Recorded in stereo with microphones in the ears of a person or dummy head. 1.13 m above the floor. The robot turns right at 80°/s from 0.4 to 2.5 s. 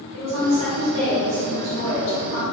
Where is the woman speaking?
95° right, 1.7 m; by 2.4 s 70° left, 1.7 m.